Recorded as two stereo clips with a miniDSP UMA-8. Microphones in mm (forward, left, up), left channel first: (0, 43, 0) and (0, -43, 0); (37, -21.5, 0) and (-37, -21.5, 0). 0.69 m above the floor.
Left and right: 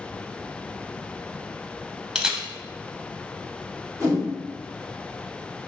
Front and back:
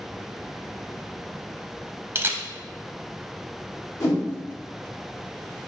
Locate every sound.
2.1 s a camera shutter: 165° right, 0.5 m
4.0 s a whoosh: 40° right, 1.8 m